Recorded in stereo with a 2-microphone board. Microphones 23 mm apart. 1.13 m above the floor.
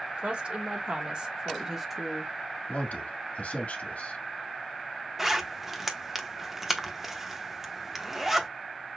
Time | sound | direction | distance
0.2 | a woman speaking | 55° right (ahead or behind) | 2 m
2.7 | a man speaking | 80° left | 1.7 m
5.2 | a zipper | 15° right (ahead or behind) | 1.0 m